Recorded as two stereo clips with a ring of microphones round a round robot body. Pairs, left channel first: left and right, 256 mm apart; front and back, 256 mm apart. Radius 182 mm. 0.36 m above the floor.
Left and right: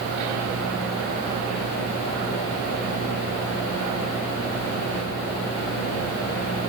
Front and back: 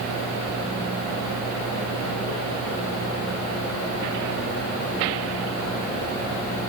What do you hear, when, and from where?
Only background noise.